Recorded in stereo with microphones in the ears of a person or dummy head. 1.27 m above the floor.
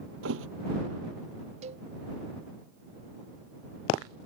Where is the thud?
65° right (ahead or behind).